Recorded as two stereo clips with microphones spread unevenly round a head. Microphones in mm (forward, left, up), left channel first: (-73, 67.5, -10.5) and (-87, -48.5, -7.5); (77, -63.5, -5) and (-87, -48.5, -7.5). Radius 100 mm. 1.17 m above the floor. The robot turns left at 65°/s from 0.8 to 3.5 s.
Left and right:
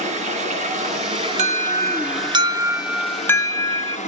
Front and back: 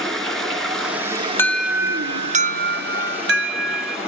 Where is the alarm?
85° right, 0.8 m; by 4.0 s 140° left, 0.8 m.